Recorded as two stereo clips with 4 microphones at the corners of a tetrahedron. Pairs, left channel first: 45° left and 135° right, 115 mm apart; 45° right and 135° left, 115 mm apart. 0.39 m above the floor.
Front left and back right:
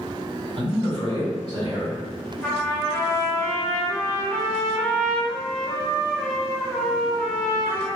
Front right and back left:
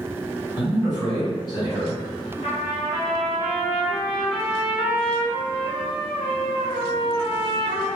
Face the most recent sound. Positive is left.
turn(degrees=-35)